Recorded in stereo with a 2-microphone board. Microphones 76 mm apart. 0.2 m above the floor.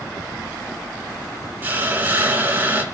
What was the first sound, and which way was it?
A hiss, 25° right (ahead or behind).